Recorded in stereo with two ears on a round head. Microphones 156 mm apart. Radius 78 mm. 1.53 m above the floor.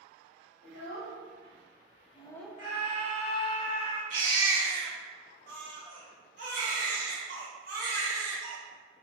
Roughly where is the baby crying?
Right.